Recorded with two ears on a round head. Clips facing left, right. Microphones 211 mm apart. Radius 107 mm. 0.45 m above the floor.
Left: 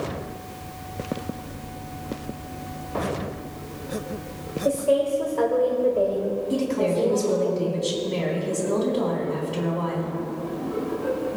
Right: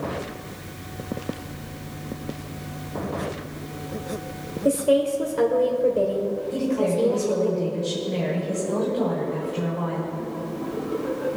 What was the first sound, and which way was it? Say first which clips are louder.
A woman speaking: right 2 dB; 25° right (ahead or behind).